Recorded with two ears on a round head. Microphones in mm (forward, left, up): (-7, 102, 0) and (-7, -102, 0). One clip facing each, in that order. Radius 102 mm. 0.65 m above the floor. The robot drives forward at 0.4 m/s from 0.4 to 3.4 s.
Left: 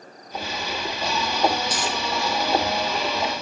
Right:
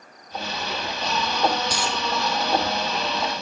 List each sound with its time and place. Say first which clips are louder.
1.7 s a dropped coin: even; 70° right (ahead or behind), 1.8 m